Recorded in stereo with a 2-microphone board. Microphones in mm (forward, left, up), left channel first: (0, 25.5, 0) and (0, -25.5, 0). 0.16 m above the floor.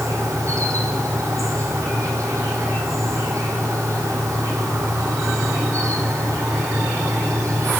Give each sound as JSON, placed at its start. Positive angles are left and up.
{"t": 0.0, "sound": "an insect", "side_deg": -80, "distance_m": 3.5}